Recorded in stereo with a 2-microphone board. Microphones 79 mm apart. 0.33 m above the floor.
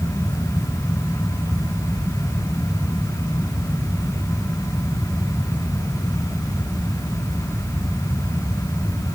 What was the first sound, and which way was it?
Only background noise.